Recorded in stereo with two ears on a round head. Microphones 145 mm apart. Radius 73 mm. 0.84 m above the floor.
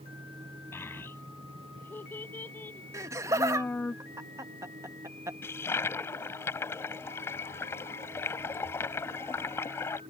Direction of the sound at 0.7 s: 15° left (ahead or behind).